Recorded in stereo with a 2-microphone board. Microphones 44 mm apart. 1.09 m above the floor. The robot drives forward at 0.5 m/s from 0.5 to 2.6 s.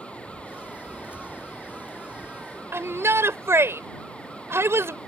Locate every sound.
0.0 s running water: 30° left (ahead or behind)
2.7 s a shout: 70° right (ahead or behind)